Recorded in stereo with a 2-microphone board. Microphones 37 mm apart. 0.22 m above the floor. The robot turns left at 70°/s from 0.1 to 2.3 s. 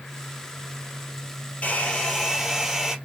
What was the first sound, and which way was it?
A hair dryer, 45° left.